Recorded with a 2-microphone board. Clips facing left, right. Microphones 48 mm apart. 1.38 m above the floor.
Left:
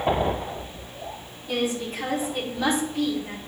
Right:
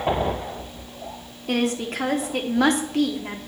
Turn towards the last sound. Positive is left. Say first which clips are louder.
# right 3 dB
turn(degrees=-60)  # may be behind; listen again after turning